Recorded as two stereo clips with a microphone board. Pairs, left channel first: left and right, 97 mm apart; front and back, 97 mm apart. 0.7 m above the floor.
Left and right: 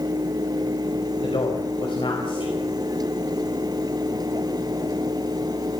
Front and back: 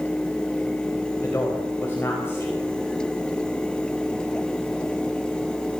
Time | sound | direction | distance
1.2 | a man speaking | 65° left | 4.5 m